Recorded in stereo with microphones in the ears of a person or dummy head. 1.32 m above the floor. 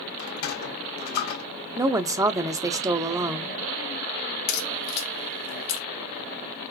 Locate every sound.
0.2 s a sliding door: 60° left (ahead or behind), 1.3 m
1.8 s a woman speaking: 15° right (ahead or behind), 0.6 m
4.5 s a crack: 55° left (ahead or behind), 1.9 m